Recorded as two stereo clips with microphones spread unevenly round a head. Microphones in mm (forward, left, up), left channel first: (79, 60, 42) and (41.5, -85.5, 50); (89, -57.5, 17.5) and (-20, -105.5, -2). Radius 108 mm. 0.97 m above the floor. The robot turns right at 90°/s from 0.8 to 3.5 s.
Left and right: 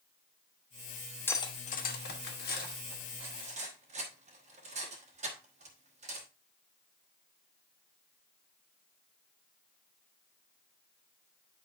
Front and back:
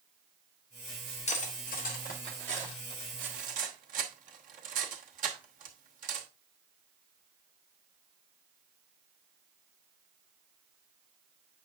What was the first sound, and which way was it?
Cutlery clinking, straight ahead.